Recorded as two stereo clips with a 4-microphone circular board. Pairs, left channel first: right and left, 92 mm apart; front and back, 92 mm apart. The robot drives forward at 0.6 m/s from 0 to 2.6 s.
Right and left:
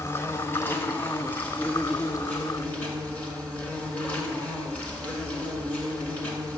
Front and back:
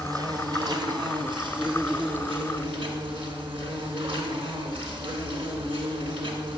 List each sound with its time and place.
0.0 s an insect: 145° right, 1.5 m; by 6.6 s 165° right, 3 m